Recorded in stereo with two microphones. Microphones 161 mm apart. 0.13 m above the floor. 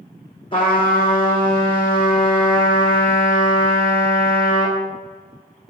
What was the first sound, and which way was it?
A trumpet, 30° left (ahead or behind).